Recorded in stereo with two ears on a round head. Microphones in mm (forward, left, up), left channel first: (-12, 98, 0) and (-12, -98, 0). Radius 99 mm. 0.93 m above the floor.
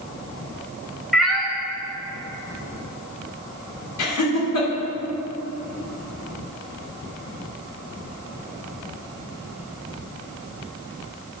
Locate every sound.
1.1 s a cat meowing: centre (ahead or behind), 0.8 m
4.0 s laughter: 85° left, 2.5 m